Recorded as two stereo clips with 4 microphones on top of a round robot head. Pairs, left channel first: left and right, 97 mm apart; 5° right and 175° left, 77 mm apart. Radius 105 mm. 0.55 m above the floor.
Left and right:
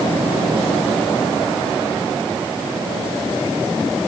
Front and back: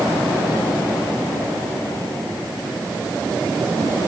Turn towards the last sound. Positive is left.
No sound to turn to.